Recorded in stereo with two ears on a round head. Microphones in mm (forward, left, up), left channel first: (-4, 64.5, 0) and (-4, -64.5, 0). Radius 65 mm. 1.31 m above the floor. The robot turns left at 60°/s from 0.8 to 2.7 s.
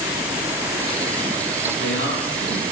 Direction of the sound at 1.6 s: 105° left.